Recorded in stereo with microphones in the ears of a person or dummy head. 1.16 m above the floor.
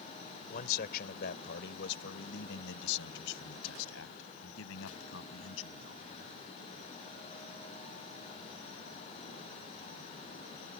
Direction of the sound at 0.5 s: 55° left (ahead or behind).